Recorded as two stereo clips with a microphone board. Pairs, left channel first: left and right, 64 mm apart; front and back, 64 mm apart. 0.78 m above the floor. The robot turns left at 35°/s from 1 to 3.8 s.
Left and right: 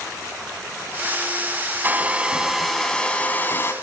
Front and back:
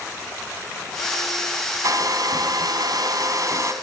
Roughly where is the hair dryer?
Behind right.